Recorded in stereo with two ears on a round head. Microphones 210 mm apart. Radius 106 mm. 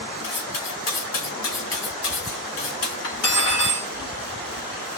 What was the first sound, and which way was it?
Cutlery clinking, 75° left (ahead or behind).